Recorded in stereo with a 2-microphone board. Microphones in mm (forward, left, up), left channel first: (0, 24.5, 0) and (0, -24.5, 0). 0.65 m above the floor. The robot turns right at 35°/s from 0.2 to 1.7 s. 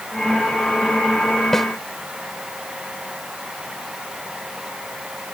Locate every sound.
1.5 s a snare drum: 10° left (ahead or behind); by 1.7 s 5° left (ahead or behind)